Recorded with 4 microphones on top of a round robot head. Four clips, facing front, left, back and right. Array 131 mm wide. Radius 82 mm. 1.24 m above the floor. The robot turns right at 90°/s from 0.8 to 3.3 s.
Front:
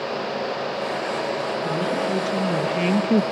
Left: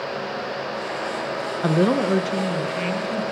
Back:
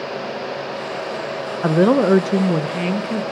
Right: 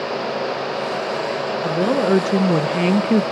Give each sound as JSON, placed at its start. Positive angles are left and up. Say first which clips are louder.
{"t": 1.6, "sound": "a woman speaking", "louder": "even, back 13 dB", "azimuth_deg": 160, "distance_m": 1.3}